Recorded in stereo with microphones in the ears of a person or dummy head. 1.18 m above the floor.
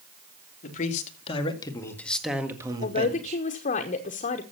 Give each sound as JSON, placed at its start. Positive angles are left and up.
{"t": 0.6, "sound": "a man speaking", "side_deg": 45, "distance_m": 2.5}
{"t": 2.8, "sound": "a man speaking", "side_deg": 40, "distance_m": 1.0}